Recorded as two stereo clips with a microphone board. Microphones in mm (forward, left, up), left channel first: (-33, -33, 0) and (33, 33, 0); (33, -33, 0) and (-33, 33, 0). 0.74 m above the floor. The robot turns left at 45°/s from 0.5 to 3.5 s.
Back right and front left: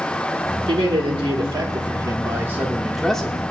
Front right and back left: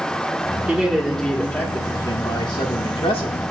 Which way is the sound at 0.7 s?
60° left.